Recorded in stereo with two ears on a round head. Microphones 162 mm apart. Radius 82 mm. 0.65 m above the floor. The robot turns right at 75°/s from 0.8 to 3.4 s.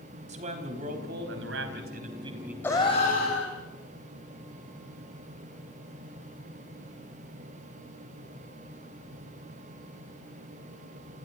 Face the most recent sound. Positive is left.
turn(degrees=70)